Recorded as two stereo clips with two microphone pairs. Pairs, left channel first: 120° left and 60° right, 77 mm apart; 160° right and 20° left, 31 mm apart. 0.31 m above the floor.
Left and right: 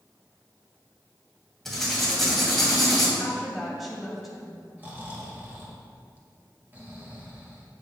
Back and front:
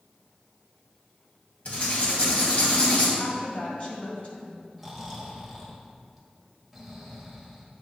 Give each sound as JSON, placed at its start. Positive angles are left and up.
{"t": 1.6, "sound": "writing", "azimuth_deg": -150, "distance_m": 2.5}
{"t": 3.2, "sound": "a woman speaking", "azimuth_deg": -150, "distance_m": 2.0}
{"t": 4.8, "sound": "snoring", "azimuth_deg": -65, "distance_m": 1.6}